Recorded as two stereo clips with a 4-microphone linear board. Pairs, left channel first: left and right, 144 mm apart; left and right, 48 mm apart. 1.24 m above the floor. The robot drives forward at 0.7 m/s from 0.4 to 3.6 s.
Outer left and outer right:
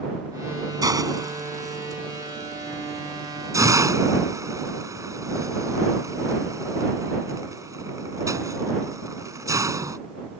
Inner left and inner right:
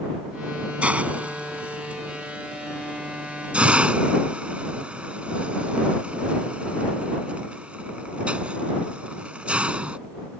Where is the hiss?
25° right (ahead or behind); by 10.0 s 20° right (ahead or behind).